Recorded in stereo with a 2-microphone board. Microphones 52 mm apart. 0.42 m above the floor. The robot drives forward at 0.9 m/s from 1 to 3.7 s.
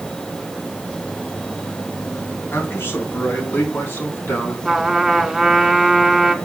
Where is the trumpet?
5° right (ahead or behind), 1.5 m.